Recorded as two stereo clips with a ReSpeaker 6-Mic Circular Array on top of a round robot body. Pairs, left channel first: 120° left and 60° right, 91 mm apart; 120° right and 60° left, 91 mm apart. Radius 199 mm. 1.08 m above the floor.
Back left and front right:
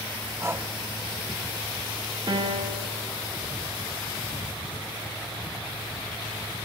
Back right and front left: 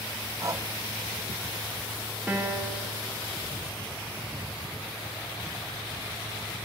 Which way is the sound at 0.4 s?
5° left.